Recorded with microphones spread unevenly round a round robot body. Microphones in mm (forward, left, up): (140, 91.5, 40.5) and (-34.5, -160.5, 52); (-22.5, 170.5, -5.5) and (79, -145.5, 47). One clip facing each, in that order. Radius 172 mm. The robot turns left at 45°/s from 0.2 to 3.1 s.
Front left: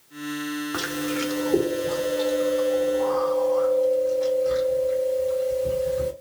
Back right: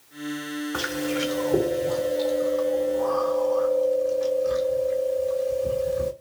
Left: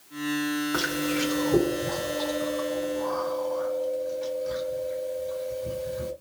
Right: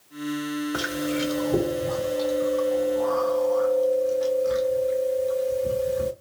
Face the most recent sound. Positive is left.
turn(degrees=-65)